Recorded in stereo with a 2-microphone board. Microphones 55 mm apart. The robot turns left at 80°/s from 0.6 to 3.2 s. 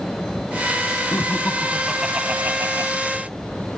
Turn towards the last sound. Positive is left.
turn(degrees=-105)